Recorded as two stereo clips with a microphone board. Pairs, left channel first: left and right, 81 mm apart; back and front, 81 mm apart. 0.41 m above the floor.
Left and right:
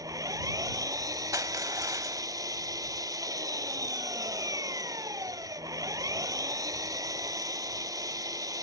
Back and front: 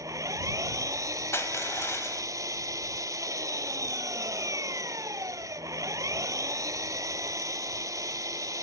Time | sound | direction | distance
0.0 | an engine running | 45° right | ?
1.3 | crushing | 130° right | ?